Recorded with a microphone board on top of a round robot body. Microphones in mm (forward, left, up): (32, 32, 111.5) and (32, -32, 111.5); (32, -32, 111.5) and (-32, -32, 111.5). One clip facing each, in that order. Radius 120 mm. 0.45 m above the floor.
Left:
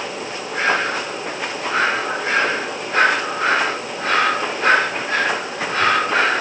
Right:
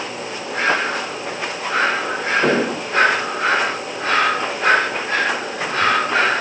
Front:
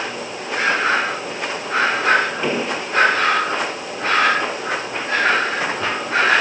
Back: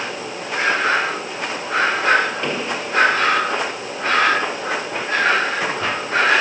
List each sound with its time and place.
2.4 s an explosion: 80° right